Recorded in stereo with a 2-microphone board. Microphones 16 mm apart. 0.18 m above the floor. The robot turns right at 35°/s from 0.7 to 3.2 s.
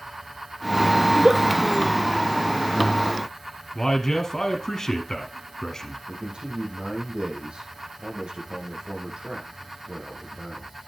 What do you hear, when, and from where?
1.1 s a giggle: 60° right (ahead or behind), 5.5 m; by 1.4 s 50° right (ahead or behind), 5.5 m
3.8 s a man speaking: 35° left (ahead or behind), 1.8 m
6.1 s a man speaking: 75° right (ahead or behind), 6.5 m